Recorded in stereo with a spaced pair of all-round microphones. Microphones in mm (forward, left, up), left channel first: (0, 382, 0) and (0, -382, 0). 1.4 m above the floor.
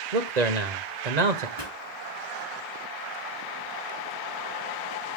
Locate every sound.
0.1 s a man speaking: 65° right (ahead or behind), 1.1 m
1.6 s a pop: 65° left (ahead or behind), 4 m